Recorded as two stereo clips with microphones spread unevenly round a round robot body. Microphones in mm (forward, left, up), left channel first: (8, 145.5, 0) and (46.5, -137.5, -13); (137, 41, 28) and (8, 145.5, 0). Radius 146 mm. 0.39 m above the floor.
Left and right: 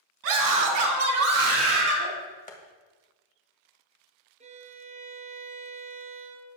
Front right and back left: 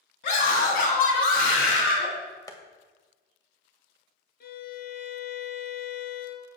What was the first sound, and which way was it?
A scream, 70° right.